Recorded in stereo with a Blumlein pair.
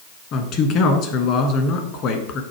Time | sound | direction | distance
0.3 | a man speaking | 35° left | 1.3 m